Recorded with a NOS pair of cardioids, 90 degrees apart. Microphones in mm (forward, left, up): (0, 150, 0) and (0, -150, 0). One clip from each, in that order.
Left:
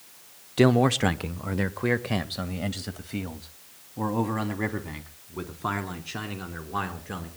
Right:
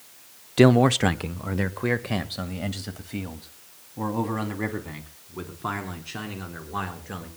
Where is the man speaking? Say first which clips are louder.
Right 3 dB; 15° right, 0.9 m; by 7.3 s 10° left, 6 m.